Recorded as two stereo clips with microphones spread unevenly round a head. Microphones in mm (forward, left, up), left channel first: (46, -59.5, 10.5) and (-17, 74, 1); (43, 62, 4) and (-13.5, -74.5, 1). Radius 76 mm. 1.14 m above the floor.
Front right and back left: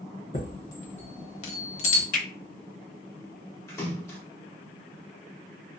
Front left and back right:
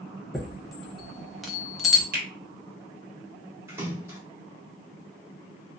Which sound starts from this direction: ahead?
A chime, at 0.3 s.